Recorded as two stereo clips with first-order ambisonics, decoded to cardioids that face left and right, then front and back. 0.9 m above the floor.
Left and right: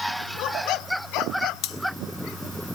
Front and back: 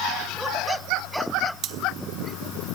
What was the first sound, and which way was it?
Cutlery clinking, 125° left.